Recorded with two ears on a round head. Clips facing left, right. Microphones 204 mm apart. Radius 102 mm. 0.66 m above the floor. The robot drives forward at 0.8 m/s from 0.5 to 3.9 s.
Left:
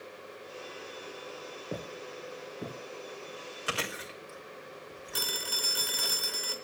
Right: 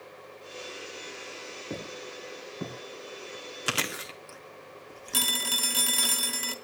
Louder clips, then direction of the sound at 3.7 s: Right 2 dB; 55° right (ahead or behind).